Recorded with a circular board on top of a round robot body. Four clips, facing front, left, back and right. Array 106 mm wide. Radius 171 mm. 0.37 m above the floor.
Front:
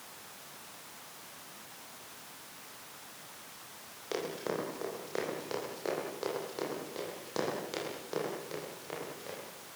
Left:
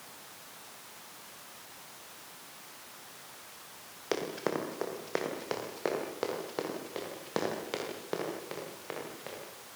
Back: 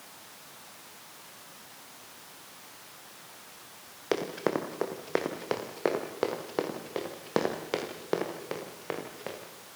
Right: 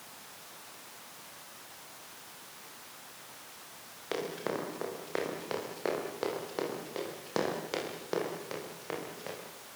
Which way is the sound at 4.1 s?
165° left.